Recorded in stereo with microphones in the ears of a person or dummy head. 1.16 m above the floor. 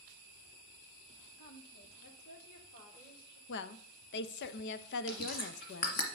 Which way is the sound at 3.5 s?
60° left (ahead or behind).